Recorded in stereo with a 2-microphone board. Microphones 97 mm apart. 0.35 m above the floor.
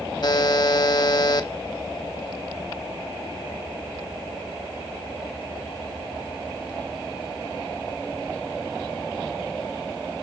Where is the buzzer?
50° left (ahead or behind), 1.0 m.